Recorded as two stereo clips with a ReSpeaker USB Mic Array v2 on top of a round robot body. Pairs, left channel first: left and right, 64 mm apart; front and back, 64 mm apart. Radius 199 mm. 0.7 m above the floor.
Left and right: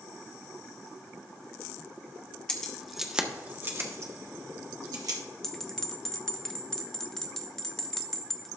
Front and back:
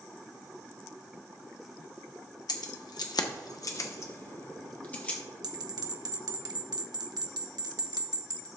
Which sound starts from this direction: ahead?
Keys jangling, at 2.5 s.